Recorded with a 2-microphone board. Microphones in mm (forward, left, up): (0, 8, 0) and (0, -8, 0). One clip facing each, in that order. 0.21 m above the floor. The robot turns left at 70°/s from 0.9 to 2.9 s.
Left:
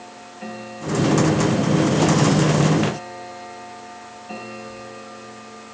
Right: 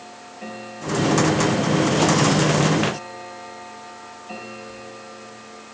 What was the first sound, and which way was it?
Only background noise.